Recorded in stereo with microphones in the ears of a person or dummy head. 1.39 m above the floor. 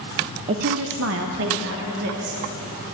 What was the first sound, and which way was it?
A woman speaking, 35° right (ahead or behind).